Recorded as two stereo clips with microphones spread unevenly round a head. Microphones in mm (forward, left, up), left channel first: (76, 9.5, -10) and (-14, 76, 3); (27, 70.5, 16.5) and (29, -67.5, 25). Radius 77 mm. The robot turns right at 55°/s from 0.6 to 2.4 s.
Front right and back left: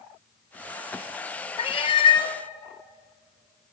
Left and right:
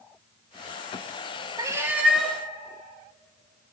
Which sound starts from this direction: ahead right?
A cat meowing, at 1.6 s.